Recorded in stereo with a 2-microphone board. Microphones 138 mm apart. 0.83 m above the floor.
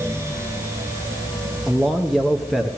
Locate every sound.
1.7 s a man speaking: centre (ahead or behind), 0.8 m